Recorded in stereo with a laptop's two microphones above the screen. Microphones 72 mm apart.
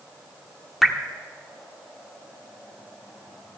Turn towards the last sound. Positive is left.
turn(degrees=0)  # may be behind; listen again after turning